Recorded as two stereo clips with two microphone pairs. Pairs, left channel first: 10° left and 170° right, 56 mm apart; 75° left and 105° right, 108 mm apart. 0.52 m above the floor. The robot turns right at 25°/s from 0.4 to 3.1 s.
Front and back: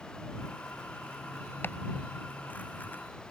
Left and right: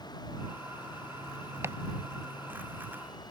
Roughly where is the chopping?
Ahead right.